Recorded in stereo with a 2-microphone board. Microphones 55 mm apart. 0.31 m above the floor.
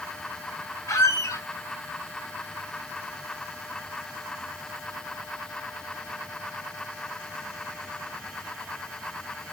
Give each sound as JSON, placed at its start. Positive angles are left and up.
{"t": 0.9, "sound": "a squeak", "side_deg": 75, "distance_m": 0.8}